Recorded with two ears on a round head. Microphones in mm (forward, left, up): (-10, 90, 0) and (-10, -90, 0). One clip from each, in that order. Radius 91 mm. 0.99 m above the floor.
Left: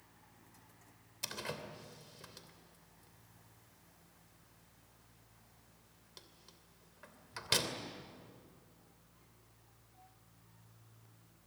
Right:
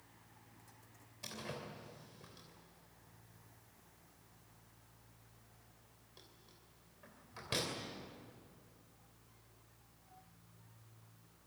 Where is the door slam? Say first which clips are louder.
Left 4 dB; 60° left (ahead or behind), 3 m.